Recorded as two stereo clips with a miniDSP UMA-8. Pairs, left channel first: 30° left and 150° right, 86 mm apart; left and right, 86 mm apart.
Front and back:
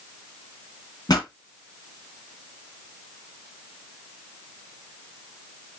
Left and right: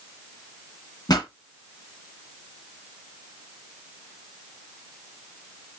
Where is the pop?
60° left, 1.5 m.